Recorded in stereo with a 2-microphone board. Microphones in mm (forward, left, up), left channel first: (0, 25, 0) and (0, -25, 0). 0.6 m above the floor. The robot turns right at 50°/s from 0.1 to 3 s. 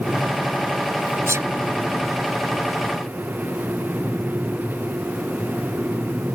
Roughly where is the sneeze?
Right.